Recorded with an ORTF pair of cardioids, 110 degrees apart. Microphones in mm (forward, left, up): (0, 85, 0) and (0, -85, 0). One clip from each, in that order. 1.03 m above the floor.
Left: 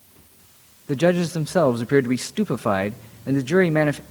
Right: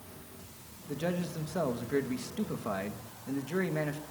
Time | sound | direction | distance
0.9 | a man speaking | 70° left | 0.8 m